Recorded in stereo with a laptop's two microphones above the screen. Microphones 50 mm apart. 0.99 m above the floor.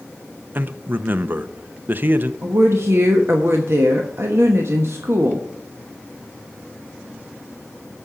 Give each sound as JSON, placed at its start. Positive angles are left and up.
{"t": 0.6, "sound": "a man speaking", "side_deg": -40, "distance_m": 0.7}
{"t": 2.4, "sound": "a woman speaking", "side_deg": -60, "distance_m": 1.1}